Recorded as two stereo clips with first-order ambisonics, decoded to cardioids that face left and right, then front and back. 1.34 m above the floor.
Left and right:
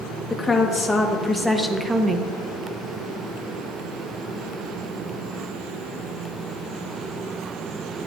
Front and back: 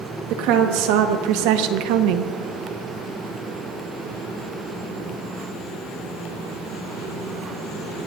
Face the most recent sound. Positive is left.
turn(degrees=-155)